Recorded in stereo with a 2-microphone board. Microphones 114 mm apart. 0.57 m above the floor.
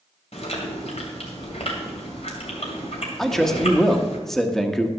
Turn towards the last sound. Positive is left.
turn(degrees=5)  # may be behind; listen again after turning